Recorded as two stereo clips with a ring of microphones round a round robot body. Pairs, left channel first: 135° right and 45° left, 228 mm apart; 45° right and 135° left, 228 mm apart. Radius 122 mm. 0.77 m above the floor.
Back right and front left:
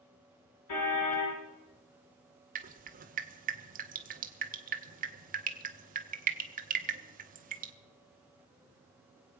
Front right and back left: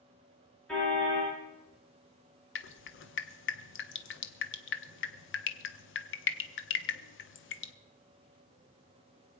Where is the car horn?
130° right, 7 m.